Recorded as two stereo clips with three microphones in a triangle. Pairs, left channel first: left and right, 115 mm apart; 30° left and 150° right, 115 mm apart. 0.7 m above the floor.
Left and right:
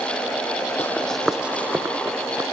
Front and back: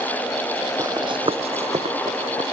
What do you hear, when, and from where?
0.8 s running footsteps: 155° left; by 2.4 s 150° right